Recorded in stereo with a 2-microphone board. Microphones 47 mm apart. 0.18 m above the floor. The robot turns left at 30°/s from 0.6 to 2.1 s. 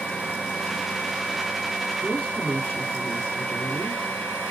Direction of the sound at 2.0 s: 25° left (ahead or behind).